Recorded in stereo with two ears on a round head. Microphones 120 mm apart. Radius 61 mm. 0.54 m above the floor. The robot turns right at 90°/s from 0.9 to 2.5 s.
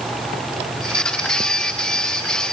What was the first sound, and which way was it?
Only background noise.